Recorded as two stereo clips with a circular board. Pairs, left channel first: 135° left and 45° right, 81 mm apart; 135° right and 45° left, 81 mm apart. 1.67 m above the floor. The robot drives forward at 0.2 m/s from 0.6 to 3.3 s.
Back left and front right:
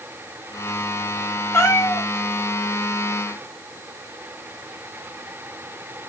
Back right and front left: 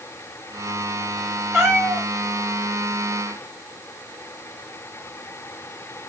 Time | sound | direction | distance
1.5 | a cat meowing | 120° left | 1.9 m